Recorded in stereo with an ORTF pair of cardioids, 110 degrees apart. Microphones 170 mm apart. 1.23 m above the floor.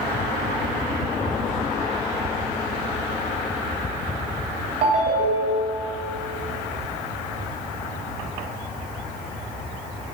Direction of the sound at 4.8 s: 50° right.